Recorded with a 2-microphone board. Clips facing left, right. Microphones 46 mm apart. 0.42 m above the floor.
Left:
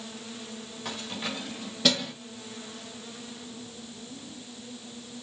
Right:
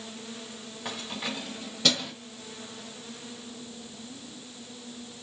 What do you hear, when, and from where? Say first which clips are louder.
0.8 s keys jangling: even; 10° right (ahead or behind), 1.2 m; by 2.1 s 10° left (ahead or behind), 1.7 m